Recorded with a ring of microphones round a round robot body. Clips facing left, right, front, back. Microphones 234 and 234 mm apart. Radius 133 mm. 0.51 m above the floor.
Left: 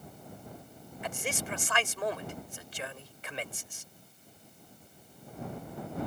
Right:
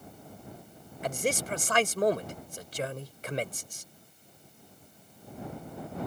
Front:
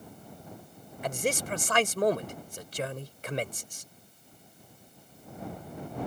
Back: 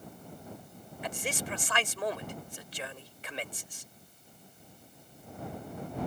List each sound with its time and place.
1.0 s a man speaking: 45° right